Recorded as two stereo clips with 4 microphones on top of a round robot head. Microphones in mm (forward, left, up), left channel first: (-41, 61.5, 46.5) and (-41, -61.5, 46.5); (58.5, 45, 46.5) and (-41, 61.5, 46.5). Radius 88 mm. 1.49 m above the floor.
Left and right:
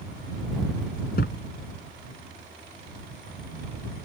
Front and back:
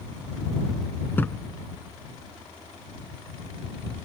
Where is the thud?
60° left.